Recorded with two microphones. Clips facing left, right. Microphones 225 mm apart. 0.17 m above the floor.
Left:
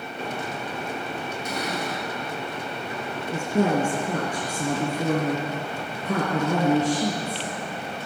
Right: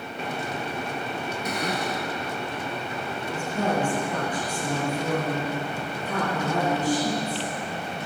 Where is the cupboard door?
65° right (ahead or behind), 4 m.